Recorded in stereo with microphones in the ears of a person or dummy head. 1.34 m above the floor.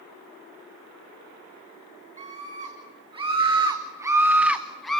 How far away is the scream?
About 2.5 m.